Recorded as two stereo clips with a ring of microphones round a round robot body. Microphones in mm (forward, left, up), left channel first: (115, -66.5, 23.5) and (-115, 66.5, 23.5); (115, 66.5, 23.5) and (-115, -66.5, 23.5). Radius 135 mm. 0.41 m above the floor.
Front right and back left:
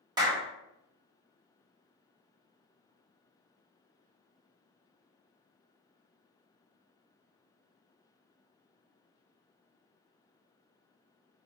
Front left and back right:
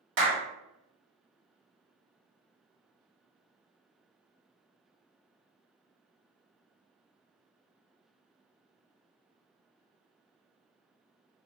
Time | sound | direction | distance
0.2 | a clap | 140° right | 1.5 m